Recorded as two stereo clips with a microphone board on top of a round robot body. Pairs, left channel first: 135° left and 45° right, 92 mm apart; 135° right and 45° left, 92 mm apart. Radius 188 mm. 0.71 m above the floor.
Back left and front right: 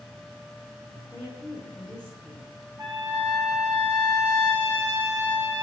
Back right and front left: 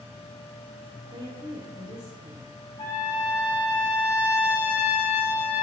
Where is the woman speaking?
50° left, 2.5 m.